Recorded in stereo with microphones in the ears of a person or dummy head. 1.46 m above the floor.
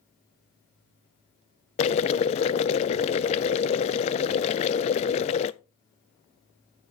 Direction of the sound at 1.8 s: 30° left (ahead or behind).